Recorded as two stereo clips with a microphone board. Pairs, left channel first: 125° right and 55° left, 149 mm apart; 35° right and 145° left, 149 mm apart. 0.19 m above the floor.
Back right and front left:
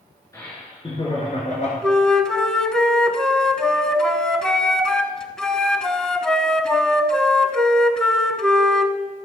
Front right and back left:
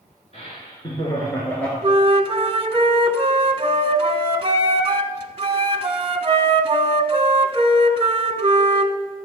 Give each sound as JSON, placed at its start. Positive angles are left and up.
{"t": 0.3, "sound": "laughter", "azimuth_deg": -60, "distance_m": 2.0}
{"t": 1.8, "sound": "a flute", "azimuth_deg": 155, "distance_m": 0.7}